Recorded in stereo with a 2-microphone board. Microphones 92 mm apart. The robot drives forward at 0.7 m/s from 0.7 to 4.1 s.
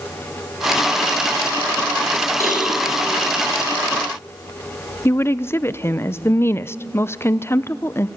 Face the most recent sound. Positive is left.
turn(degrees=25)  # may be behind; listen again after turning